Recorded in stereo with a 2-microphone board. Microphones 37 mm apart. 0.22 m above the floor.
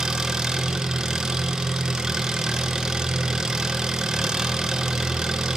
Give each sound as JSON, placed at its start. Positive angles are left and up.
{"t": 0.0, "sound": "an engine running", "side_deg": -15, "distance_m": 1.6}